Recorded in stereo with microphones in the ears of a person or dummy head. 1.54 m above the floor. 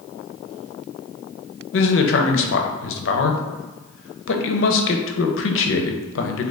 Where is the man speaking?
65° left (ahead or behind), 0.6 m.